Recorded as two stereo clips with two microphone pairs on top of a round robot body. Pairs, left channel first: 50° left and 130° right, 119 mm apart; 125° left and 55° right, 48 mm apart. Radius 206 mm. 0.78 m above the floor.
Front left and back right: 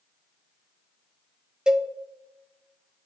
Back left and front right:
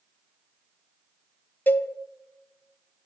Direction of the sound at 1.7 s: 155° left.